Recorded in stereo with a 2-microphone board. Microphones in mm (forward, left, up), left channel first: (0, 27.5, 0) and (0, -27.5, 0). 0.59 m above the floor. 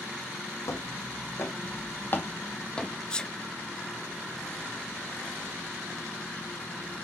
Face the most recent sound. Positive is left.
turn(degrees=15)  # may be behind; listen again after turning